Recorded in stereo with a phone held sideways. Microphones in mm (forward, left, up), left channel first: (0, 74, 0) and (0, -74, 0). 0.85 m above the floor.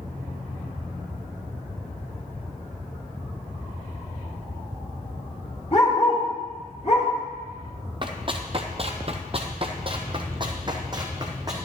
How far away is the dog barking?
About 4 m.